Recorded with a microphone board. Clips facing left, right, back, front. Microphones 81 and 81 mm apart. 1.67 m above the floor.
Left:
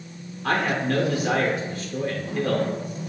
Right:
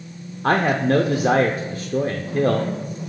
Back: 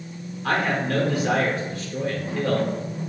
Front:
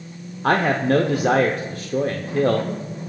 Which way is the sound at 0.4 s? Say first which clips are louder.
Right 5 dB, front 5 dB; 45° right.